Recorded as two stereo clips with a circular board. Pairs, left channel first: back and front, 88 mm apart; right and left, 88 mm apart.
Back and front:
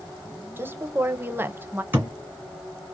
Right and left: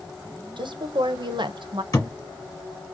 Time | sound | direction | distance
0.6 | a woman speaking | 65° left | 0.6 m
1.9 | a thud | 60° right | 1.7 m